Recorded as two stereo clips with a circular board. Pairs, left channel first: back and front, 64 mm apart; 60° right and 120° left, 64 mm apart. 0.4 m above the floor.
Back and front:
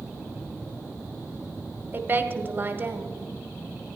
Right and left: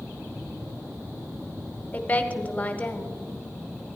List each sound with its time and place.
1.9 s a woman speaking: 15° right, 0.9 m